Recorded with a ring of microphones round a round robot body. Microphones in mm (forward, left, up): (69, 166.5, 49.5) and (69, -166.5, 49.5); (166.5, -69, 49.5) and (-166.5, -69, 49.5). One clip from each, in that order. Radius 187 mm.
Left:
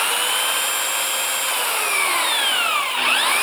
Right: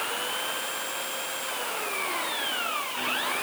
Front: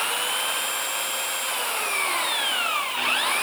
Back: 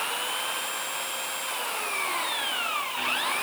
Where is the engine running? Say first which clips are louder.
Left 10 dB, front 4 dB; 80° left.